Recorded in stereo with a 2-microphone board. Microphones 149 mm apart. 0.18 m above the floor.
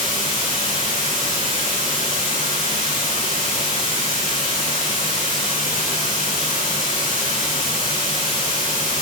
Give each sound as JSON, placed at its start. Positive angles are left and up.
{"t": 0.0, "sound": "running water", "side_deg": -55, "distance_m": 3.5}